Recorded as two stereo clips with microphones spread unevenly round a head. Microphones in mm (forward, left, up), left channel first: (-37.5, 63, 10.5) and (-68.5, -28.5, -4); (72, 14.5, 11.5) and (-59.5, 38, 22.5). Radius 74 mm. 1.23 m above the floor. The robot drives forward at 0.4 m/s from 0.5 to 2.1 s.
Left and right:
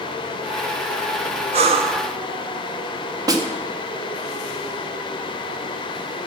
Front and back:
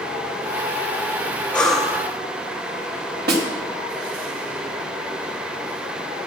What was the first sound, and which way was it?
Breathing, 95° right.